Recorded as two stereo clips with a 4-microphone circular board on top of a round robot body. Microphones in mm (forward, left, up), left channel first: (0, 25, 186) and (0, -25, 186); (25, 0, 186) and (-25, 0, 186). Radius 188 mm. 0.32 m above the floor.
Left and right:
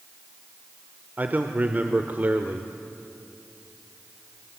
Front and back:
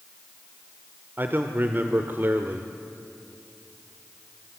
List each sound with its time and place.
1.2 s a man speaking: 140° right, 1.4 m